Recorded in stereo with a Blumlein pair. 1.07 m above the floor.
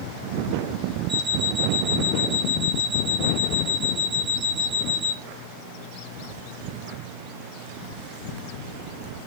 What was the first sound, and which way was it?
An alarm clock, 25° right.